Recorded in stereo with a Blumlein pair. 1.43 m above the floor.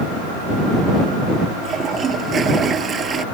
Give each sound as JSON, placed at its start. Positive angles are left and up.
{"t": 1.6, "sound": "a toilet flushing", "azimuth_deg": -20}